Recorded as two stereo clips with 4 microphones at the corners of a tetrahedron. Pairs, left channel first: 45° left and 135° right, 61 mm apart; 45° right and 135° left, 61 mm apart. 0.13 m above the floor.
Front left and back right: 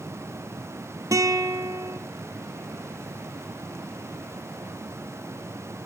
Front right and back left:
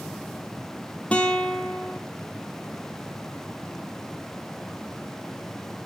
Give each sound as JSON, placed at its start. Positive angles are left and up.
{"t": 1.1, "sound": "a guitar", "azimuth_deg": -115, "distance_m": 0.5}